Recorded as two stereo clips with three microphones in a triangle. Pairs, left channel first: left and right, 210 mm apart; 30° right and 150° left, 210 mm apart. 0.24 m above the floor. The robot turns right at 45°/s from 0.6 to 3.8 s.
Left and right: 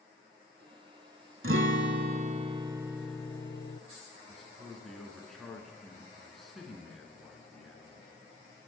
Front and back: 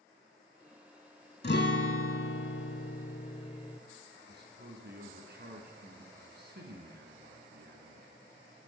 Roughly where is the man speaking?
Behind.